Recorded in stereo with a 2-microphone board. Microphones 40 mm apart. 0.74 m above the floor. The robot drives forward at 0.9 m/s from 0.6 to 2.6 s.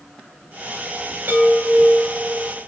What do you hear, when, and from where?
1.3 s a chime: 50° right (ahead or behind), 7.5 m; by 2.6 s 45° right (ahead or behind), 8 m